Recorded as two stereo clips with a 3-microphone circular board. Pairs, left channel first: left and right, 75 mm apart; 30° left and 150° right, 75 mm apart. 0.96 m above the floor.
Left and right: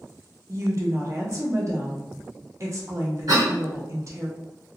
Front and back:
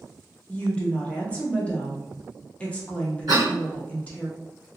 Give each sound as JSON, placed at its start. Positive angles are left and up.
{"t": 0.5, "sound": "a woman speaking", "azimuth_deg": -45, "distance_m": 0.8}
{"t": 3.3, "sound": "a cough", "azimuth_deg": -120, "distance_m": 1.4}